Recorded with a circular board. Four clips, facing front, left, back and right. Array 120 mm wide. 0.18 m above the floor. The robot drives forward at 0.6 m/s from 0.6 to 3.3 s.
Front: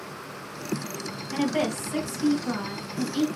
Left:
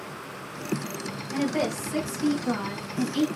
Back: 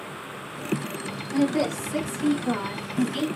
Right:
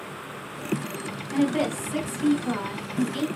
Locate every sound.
1.3 s a woman speaking: 20° right, 1.3 m; by 3.3 s 165° right, 1.4 m